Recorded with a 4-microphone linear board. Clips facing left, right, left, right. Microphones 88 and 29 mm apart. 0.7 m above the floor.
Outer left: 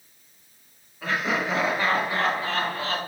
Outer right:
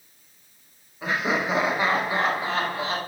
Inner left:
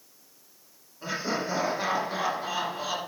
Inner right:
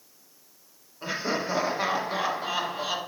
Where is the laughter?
15° right (ahead or behind), 1.5 m.